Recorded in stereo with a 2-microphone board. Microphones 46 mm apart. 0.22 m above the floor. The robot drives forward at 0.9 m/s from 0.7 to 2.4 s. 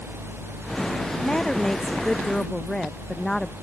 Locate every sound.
1.2 s a woman speaking: 10° left (ahead or behind)